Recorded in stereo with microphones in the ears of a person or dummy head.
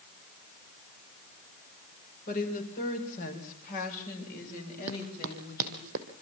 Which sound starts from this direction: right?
Running footsteps, at 4.9 s.